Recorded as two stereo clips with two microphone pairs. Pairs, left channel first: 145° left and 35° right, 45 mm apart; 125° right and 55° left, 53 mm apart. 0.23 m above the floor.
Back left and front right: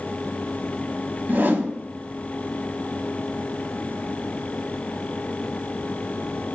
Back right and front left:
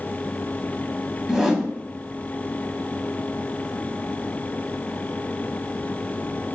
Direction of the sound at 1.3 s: 30° right.